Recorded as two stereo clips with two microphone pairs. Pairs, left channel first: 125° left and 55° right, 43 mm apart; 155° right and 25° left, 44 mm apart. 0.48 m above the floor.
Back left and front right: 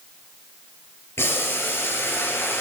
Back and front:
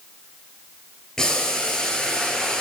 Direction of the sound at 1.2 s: 130° left.